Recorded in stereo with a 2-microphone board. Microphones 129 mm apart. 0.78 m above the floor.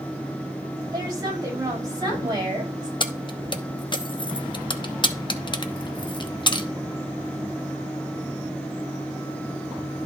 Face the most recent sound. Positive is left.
turn(degrees=35)  # may be behind; listen again after turning